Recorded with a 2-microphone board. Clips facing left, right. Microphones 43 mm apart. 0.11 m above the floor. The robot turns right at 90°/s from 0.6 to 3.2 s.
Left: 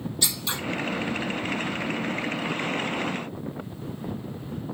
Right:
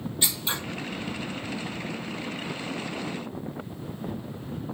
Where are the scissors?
25° right (ahead or behind), 3.5 m.